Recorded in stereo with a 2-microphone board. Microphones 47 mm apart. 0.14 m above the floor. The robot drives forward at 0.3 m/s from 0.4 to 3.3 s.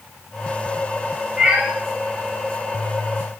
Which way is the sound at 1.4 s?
15° right (ahead or behind).